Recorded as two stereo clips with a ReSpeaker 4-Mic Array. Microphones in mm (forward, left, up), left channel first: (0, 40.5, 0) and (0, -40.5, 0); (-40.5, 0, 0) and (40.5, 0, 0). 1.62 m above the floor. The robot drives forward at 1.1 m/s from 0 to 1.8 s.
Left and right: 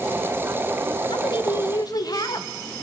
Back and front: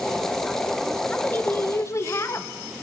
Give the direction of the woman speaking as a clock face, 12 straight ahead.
9 o'clock.